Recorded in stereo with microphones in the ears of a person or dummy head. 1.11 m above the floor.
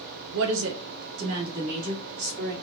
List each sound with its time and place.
0.3 s a woman speaking: 75° right (ahead or behind), 0.7 m; by 2.5 s 85° right, 3 m